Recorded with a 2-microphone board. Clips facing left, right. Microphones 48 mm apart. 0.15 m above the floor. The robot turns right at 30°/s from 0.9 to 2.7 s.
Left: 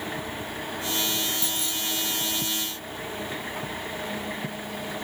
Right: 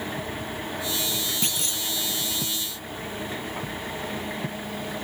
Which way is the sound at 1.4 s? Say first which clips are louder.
Right 1 dB; 70° right (ahead or behind).